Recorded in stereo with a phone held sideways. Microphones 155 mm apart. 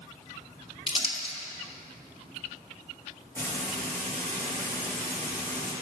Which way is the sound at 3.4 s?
15° left (ahead or behind).